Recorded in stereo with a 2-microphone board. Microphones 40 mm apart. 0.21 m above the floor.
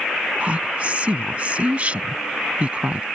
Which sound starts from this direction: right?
A woman speaking, at 0.4 s.